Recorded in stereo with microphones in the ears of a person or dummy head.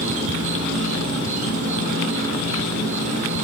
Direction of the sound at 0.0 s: 40° right (ahead or behind).